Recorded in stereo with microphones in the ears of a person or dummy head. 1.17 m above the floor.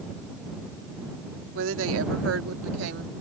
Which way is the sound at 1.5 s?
80° right.